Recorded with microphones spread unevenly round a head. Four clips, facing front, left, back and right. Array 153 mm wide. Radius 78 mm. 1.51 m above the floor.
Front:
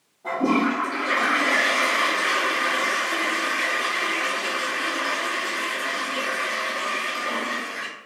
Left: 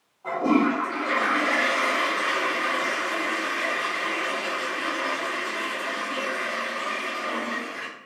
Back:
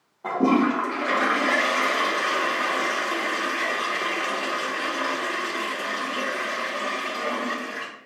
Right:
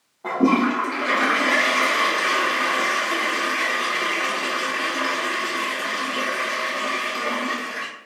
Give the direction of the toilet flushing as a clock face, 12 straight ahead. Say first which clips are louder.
Right 3 dB, back 1 dB; 4 o'clock.